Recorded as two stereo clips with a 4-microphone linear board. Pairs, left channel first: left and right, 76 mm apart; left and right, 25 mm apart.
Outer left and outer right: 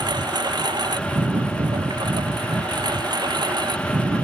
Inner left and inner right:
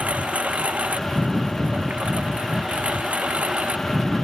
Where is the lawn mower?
75° right (ahead or behind).